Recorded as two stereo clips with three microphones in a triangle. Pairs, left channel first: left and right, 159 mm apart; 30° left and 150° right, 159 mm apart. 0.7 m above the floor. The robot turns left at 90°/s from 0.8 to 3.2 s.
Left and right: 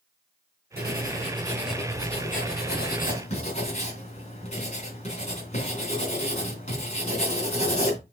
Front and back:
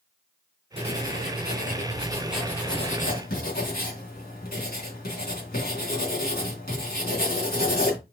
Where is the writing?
95° right, 3 m; by 8.0 s 45° left, 3 m.